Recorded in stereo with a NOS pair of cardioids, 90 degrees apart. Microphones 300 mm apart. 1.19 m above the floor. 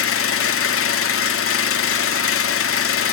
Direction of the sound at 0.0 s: 50° left.